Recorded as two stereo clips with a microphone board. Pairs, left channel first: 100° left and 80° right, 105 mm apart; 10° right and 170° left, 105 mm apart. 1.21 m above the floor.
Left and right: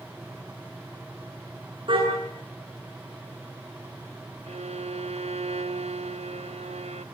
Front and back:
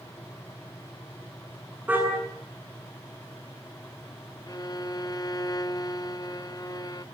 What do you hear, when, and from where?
1.9 s a car horn: 115° right, 8 m
4.5 s a violin: 70° right, 0.6 m